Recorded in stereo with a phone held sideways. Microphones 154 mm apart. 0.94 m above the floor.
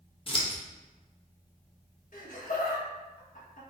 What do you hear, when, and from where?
0.3 s scissors: 35° left (ahead or behind), 0.7 m
2.1 s laughter: 60° left (ahead or behind), 1.4 m